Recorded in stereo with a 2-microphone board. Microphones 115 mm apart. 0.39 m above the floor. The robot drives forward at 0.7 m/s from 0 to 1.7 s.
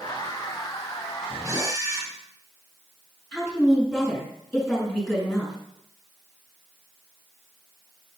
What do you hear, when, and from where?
1.4 s a camera shutter: 35° right (ahead or behind), 1.1 m; by 2.1 s 30° right (ahead or behind), 1.3 m
3.3 s a woman speaking: 5° left (ahead or behind), 4.5 m